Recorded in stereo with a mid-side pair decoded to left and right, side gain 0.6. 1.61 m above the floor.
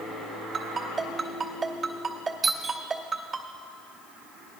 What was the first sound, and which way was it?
A ringtone, 35° right.